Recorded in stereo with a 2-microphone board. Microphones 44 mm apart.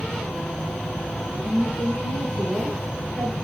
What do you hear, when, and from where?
0.0 s an insect: 50° left (ahead or behind), 1.7 m
1.4 s a woman speaking: 40° left (ahead or behind), 3 m